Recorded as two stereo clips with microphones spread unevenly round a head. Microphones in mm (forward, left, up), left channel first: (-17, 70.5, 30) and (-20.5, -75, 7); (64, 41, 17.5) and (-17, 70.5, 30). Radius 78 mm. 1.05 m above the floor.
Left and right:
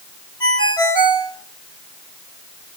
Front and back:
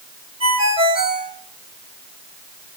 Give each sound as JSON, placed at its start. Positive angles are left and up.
{"t": 0.4, "sound": "a ringtone", "azimuth_deg": 150, "distance_m": 2.5}